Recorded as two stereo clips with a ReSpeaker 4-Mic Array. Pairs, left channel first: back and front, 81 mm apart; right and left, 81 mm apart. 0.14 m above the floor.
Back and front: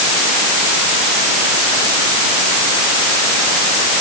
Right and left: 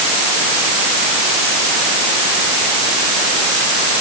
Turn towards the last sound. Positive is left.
No sound to turn to.